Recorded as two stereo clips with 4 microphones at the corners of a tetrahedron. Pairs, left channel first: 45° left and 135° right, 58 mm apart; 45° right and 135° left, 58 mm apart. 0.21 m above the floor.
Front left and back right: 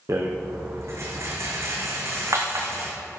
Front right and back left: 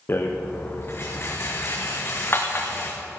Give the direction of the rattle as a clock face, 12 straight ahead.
3 o'clock.